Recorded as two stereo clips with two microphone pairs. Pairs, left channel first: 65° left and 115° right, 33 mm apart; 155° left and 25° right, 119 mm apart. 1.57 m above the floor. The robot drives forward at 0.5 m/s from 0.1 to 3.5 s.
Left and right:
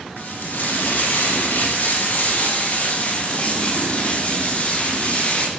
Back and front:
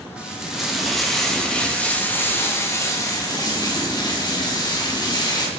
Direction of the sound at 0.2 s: 55° left.